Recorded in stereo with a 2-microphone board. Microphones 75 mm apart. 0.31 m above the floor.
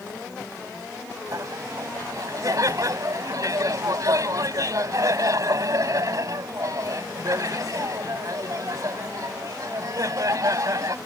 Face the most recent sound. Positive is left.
turn(degrees=-55)  # may be behind; listen again after turning